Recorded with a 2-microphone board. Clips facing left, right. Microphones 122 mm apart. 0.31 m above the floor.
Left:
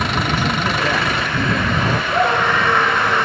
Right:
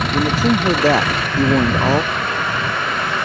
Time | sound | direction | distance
0.1 | a man speaking | 35° right (ahead or behind) | ?
2.1 | a scream | 75° left (ahead or behind) | ?